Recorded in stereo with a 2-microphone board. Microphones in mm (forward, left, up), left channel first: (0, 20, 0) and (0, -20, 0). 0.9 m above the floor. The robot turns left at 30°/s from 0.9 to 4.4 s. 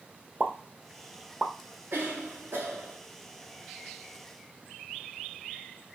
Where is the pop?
40° right (ahead or behind), 0.8 m; by 1.5 s 25° right (ahead or behind), 0.8 m.